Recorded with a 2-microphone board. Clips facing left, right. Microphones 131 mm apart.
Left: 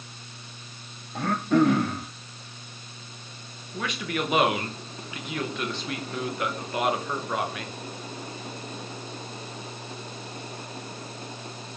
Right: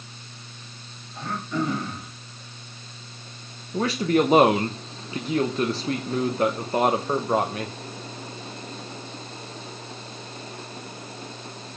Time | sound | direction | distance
1.1 | throat clearing | 70° left (ahead or behind) | 1.5 m
3.7 | a man speaking | 35° right (ahead or behind) | 0.9 m